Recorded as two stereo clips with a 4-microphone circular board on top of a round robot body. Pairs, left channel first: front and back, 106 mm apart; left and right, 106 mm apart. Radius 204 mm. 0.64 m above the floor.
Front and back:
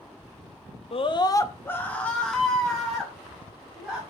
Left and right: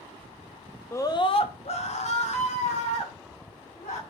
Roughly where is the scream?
Ahead left.